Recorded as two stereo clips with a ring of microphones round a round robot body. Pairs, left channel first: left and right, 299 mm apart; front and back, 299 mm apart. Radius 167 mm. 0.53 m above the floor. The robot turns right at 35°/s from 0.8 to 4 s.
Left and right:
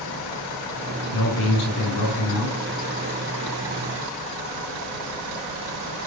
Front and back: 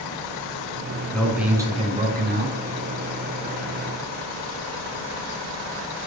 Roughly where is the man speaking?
Left.